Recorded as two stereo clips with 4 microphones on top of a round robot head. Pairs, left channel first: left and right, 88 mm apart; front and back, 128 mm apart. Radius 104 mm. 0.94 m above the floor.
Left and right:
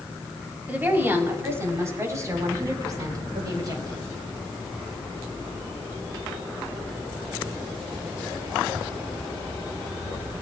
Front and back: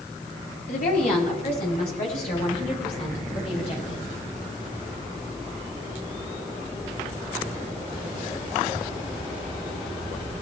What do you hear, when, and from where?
0.7 s a woman speaking: 20° right, 5 m; by 4.0 s 50° right, 8 m